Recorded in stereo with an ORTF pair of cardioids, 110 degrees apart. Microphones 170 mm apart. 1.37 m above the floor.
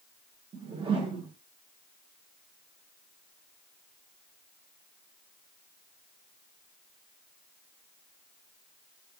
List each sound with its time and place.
0.5 s a whoosh: 30° right, 1.1 m